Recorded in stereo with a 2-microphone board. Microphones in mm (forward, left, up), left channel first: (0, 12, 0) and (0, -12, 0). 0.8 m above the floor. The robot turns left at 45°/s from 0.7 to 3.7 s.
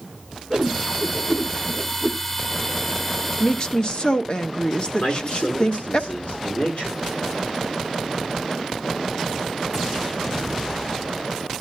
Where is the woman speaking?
40° left (ahead or behind), 0.9 m; by 6.0 s 45° left (ahead or behind), 0.9 m.